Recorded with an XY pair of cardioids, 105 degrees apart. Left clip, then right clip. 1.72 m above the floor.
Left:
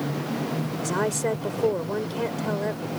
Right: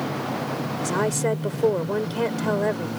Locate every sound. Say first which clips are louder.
0.8 s a woman speaking: right 2 dB; 10° right; by 3.0 s 40° right